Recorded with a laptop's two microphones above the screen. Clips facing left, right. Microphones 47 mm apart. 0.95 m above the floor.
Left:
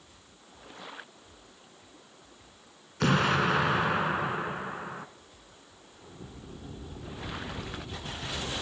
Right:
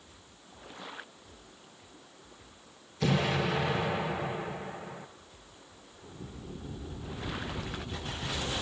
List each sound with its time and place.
3.0 s an explosion: 65° left (ahead or behind), 2.0 m